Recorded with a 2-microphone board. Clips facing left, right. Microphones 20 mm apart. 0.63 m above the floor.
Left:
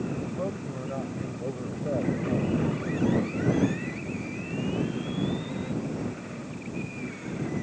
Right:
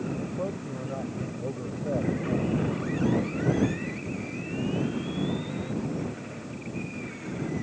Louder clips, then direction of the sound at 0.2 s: Even; 5° left (ahead or behind).